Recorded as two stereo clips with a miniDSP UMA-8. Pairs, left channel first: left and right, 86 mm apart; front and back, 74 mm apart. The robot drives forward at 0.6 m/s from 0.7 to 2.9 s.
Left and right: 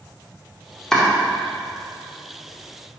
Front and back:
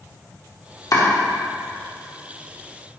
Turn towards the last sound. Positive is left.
turn(degrees=165)